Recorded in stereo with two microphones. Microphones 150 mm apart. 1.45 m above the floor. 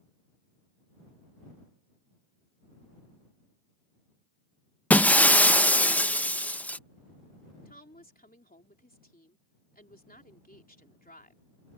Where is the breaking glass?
10° left (ahead or behind).